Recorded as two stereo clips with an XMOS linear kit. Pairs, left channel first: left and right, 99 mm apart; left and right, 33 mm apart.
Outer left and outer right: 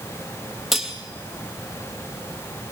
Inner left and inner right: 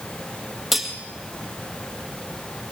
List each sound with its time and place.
0.7 s cutlery clinking: centre (ahead or behind), 2.5 m